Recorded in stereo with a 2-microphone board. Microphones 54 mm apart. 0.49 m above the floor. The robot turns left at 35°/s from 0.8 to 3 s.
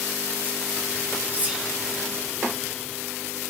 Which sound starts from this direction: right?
Whispering, at 1.3 s.